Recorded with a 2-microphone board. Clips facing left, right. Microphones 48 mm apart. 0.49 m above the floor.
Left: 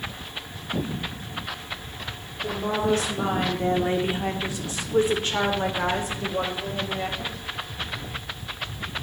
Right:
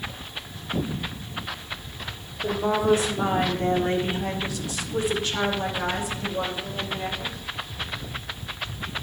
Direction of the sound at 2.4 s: 25° right (ahead or behind).